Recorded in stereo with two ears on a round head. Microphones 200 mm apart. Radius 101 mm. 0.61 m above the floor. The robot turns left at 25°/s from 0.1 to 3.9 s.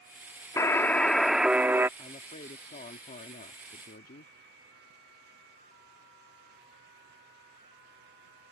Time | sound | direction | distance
0.6 | a buzzer | 20° left | ?
2.0 | a woman speaking | 140° left | ?